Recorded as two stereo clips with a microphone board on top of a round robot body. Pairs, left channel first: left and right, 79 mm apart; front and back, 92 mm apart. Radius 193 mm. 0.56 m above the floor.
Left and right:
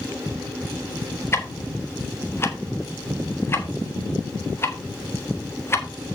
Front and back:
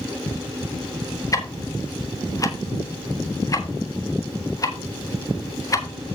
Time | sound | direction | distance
1.3 | ticking | 40° left | 1.7 m